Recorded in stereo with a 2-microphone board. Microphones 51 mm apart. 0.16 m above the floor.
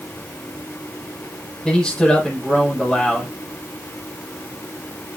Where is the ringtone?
I don't hear a ringtone.